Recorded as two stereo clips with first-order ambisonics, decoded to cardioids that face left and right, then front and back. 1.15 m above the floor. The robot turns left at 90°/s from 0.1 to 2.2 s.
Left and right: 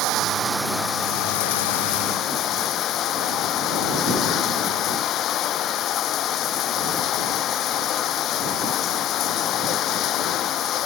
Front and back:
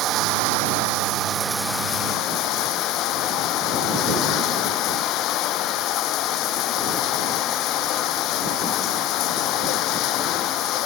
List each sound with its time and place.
0.0 s running water: 130° right; by 10.9 s 40° left